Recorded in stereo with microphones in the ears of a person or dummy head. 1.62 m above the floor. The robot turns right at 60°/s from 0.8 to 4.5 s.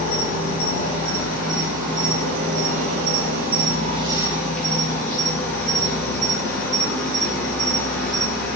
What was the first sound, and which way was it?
An insect, 145° left.